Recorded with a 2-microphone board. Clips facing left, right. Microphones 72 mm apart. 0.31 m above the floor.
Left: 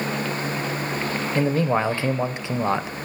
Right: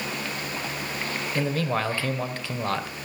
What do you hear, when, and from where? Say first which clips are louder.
1.4 s a man speaking: left 5 dB; 20° left (ahead or behind), 0.9 m